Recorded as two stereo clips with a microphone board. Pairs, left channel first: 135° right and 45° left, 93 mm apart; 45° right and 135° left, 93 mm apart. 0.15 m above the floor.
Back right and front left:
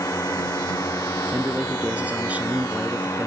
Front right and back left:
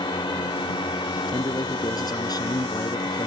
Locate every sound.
0.0 s a drone: 80° right
1.3 s a man speaking: 25° right